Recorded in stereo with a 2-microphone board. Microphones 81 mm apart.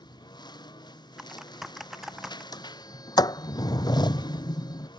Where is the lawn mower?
65° left (ahead or behind).